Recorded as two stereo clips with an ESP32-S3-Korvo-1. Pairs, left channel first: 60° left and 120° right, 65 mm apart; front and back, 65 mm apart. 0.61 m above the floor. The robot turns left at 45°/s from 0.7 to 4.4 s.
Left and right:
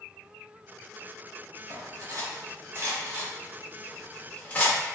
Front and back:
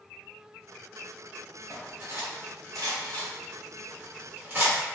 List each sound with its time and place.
1.7 s cutlery clinking: 115° right, 0.8 m; by 4.8 s 125° left, 0.8 m